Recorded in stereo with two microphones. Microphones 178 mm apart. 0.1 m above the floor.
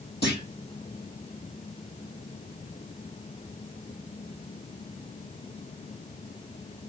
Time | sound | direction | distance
0.2 | a clunk | 65° left (ahead or behind) | 3.5 m